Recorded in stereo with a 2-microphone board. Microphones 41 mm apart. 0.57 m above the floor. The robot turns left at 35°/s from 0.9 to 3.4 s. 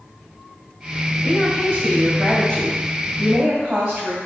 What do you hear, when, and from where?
1.2 s a woman speaking: 30° left, 2.5 m; by 4.2 s 45° right, 2.5 m